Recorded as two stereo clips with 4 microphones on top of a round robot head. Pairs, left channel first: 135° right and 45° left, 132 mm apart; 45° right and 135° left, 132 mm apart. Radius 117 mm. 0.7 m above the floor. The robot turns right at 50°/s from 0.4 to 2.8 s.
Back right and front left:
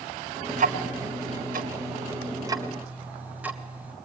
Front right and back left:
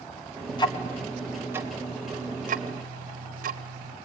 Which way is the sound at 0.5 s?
10° left.